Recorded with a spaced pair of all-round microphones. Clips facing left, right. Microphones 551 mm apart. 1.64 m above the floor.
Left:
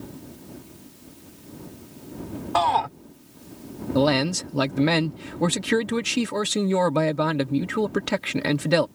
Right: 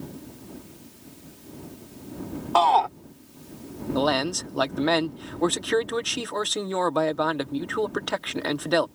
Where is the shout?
45° left (ahead or behind).